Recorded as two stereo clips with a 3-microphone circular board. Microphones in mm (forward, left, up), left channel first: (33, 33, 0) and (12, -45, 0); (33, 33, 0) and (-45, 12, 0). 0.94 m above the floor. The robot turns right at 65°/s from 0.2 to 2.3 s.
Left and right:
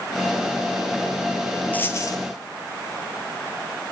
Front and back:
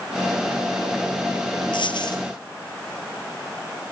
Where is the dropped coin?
5° left, 3 m; by 2.2 s 35° left, 3 m.